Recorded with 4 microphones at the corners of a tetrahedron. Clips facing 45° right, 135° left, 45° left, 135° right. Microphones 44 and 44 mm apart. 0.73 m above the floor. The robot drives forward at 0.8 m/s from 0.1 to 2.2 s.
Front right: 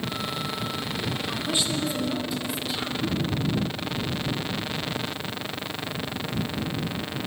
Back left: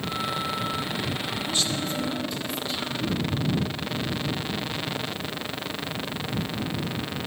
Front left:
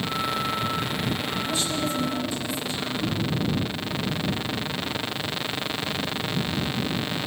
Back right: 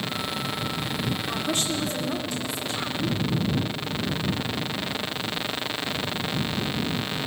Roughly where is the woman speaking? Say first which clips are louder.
Front right 1 dB, even; right.